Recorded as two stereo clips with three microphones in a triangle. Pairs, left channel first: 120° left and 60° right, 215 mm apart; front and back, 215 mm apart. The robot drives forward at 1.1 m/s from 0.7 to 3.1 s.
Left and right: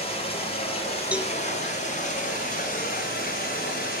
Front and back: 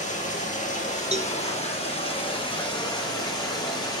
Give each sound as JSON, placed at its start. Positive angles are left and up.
{"t": 0.0, "sound": "running water", "azimuth_deg": 55, "distance_m": 9.0}
{"t": 1.1, "sound": "a cowbell", "azimuth_deg": -140, "distance_m": 1.7}